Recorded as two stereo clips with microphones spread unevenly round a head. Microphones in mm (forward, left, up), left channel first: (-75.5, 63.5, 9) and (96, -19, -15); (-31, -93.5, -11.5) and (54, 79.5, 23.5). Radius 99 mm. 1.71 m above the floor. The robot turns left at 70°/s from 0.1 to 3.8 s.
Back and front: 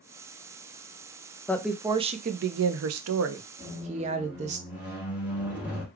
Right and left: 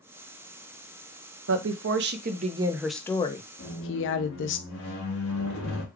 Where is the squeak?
100° right, 1.2 m; by 5.8 s 110° right, 1.2 m.